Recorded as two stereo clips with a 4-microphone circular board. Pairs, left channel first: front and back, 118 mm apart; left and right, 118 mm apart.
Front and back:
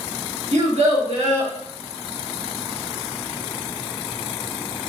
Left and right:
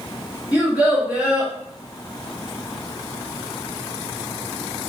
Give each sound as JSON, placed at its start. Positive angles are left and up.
{"t": 0.5, "sound": "a child speaking", "azimuth_deg": -165, "distance_m": 1.2}